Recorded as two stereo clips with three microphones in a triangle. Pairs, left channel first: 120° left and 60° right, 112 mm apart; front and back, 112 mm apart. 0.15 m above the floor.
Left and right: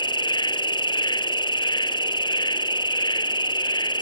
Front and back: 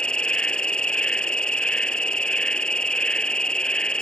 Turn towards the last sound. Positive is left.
turn(degrees=80)